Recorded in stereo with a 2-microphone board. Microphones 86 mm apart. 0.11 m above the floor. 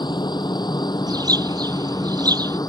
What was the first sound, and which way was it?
A helicopter, 60° left (ahead or behind).